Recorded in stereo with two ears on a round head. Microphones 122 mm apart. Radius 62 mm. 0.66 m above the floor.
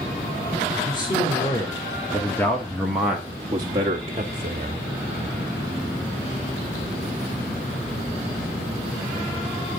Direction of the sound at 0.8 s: 30° left (ahead or behind).